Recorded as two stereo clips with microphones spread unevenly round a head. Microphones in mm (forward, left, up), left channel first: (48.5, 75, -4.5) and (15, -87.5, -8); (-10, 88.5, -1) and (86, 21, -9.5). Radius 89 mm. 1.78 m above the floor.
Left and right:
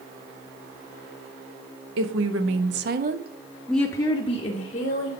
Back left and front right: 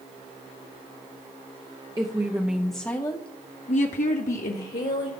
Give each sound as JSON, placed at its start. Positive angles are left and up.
{"t": 2.0, "sound": "a woman speaking", "azimuth_deg": -105, "distance_m": 1.2}